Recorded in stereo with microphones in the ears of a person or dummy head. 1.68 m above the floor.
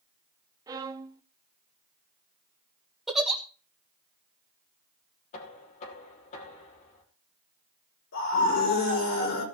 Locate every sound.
0.7 s a violin: 20° right (ahead or behind), 0.7 m
3.1 s a giggle: 10° right (ahead or behind), 1.4 m
5.3 s knocking: 45° left (ahead or behind), 3 m
8.1 s a scream: 60° left (ahead or behind), 4.5 m